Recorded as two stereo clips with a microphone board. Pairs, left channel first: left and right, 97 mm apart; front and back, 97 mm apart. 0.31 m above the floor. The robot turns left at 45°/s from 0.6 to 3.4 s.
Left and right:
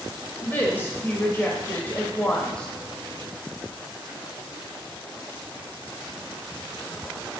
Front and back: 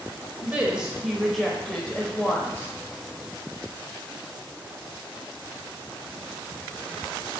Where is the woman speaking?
120° left, 0.9 m; by 2.7 s 25° left, 0.9 m.